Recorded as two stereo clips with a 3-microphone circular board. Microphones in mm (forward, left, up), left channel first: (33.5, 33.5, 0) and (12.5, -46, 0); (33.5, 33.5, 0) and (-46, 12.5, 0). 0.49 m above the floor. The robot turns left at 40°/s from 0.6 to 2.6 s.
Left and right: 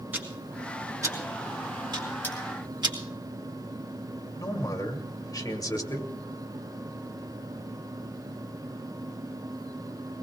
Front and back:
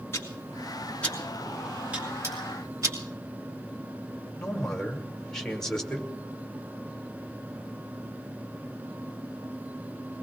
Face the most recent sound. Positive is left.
turn(degrees=95)